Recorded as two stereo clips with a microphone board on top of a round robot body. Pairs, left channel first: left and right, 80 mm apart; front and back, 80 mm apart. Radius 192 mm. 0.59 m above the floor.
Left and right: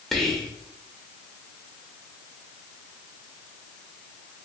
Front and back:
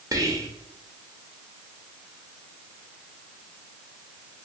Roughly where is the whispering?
Behind.